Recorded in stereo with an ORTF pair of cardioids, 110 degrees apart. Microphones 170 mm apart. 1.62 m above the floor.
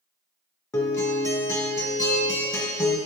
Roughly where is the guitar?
Ahead.